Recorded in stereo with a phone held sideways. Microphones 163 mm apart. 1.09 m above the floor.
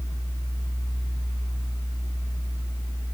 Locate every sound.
0.0 s a fan: 20° left (ahead or behind), 1.5 m